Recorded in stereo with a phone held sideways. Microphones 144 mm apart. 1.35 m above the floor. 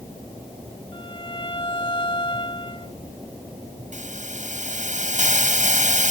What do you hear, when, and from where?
0.9 s a violin: 35° left (ahead or behind)
3.9 s a hiss: 60° right (ahead or behind)